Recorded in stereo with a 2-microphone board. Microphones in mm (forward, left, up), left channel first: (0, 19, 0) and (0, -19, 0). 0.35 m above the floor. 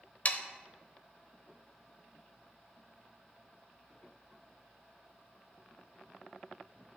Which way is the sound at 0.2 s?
40° left (ahead or behind).